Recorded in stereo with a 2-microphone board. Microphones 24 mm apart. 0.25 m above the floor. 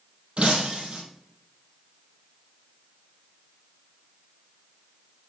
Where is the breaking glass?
55° right (ahead or behind), 3 m.